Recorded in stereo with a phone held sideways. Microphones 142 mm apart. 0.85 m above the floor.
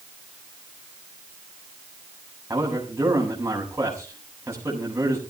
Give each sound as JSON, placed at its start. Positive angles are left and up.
{"t": 2.5, "sound": "a man speaking", "side_deg": -20, "distance_m": 7.5}